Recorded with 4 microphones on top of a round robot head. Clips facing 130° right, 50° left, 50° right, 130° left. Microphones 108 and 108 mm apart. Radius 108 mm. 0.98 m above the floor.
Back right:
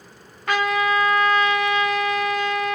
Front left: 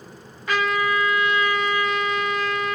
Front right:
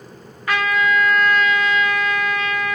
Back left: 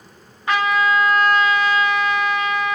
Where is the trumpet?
165° right, 1.2 m.